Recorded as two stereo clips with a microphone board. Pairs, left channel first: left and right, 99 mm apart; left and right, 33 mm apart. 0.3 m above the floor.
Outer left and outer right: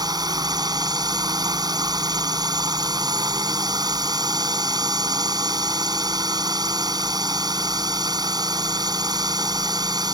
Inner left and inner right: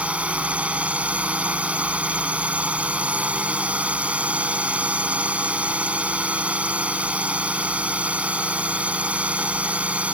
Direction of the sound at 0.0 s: 40° right (ahead or behind).